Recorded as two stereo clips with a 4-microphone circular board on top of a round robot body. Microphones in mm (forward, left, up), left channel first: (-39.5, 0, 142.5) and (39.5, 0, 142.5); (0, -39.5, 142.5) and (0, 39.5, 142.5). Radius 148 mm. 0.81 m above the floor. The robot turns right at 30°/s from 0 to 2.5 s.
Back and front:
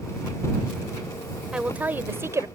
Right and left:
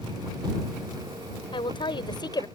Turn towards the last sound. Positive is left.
turn(degrees=-50)